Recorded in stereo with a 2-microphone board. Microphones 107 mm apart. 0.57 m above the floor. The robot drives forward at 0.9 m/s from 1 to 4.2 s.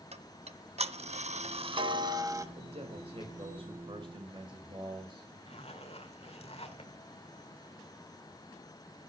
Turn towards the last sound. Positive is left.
turn(degrees=65)  # may be behind; listen again after turning